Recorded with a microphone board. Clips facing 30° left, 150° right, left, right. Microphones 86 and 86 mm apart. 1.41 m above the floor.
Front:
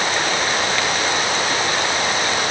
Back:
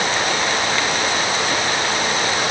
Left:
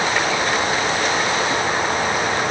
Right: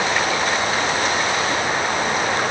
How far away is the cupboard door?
No cupboard door in this recording.